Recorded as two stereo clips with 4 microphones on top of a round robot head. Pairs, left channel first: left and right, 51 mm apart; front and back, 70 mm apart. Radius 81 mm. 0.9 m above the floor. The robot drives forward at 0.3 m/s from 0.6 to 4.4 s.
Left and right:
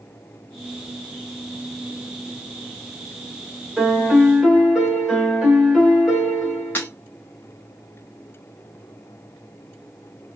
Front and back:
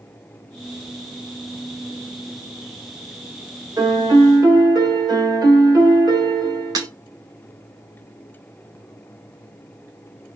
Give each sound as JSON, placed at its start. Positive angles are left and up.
{"t": 3.8, "sound": "a piano", "azimuth_deg": -170, "distance_m": 1.6}
{"t": 6.8, "sound": "breaking glass", "azimuth_deg": 150, "distance_m": 0.7}